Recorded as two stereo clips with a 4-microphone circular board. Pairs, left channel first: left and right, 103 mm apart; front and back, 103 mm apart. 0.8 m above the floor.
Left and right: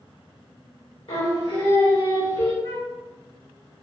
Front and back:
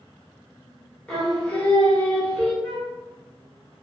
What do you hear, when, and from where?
1.1 s singing: 80° left, 1.3 m
2.6 s a flute: 90° left, 1.6 m